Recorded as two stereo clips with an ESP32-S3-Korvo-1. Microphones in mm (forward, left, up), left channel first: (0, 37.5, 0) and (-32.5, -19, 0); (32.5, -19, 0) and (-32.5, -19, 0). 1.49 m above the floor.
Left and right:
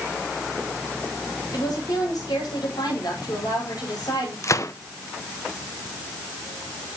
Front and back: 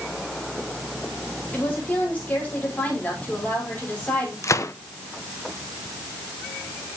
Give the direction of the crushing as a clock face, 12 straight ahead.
No crushing in this recording.